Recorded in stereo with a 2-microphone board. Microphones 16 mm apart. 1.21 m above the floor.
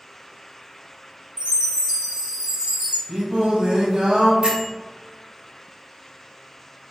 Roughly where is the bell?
Right.